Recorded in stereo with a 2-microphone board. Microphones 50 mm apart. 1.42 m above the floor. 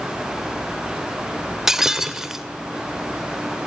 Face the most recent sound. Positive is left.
turn(degrees=-10)  # may be behind; listen again after turning